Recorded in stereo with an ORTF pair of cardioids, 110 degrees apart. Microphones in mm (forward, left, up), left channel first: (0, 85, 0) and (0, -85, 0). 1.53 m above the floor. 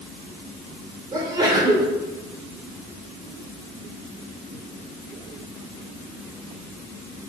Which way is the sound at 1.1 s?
25° right.